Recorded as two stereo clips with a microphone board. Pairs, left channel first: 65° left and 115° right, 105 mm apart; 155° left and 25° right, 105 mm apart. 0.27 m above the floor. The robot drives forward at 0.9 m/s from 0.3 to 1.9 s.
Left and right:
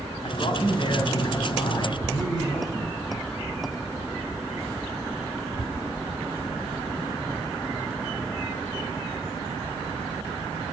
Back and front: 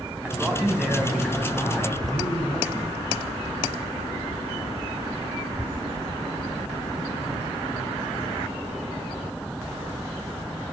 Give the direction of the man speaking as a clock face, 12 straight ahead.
10 o'clock.